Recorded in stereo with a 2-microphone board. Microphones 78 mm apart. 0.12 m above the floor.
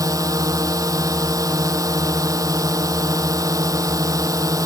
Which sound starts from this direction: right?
A drone, at 0.0 s.